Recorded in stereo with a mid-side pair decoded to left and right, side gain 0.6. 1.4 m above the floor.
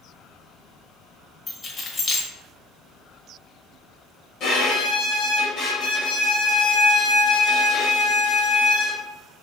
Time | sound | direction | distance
1.5 | keys jangling | 40° left | 0.8 m
4.4 | a violin | 55° left | 1.2 m